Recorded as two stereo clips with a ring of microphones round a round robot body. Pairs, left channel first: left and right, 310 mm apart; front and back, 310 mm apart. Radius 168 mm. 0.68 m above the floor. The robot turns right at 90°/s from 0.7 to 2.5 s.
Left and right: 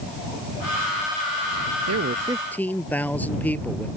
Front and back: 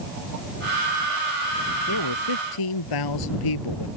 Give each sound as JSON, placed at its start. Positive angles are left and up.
{"t": 1.9, "sound": "a man speaking", "azimuth_deg": -50}